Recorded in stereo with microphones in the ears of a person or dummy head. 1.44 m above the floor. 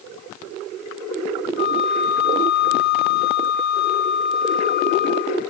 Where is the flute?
55° left (ahead or behind), 3 m.